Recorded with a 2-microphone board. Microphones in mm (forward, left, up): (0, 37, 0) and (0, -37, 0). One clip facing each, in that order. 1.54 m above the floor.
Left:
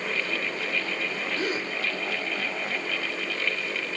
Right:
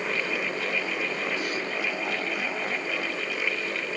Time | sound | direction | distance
1.4 | a gasp | 35° left (ahead or behind) | 1.6 m